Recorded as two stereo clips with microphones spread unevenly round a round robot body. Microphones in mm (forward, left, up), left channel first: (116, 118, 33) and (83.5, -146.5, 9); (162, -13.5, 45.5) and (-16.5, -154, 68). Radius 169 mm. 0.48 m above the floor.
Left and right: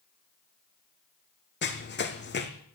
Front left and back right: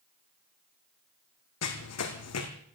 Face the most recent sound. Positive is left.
turn(degrees=35)